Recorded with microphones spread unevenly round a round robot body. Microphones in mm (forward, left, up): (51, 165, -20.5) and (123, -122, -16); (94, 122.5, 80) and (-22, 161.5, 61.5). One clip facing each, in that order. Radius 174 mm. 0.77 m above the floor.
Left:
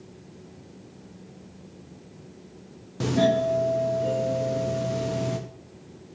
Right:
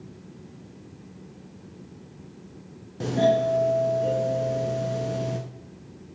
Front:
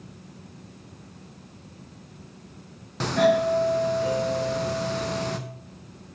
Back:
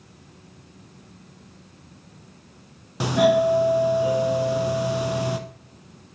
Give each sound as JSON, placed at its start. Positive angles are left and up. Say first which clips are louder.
{"t": 3.0, "sound": "a doorbell", "louder": "even, back 2 dB", "azimuth_deg": 145, "distance_m": 0.8}